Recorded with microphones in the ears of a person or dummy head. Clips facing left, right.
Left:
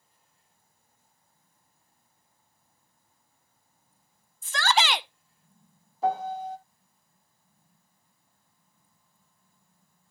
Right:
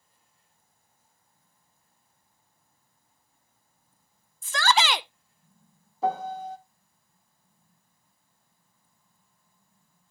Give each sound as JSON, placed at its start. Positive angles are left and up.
{"t": 4.4, "sound": "a shout", "side_deg": -65, "distance_m": 0.6}
{"t": 6.0, "sound": "a piano", "side_deg": -75, "distance_m": 1.0}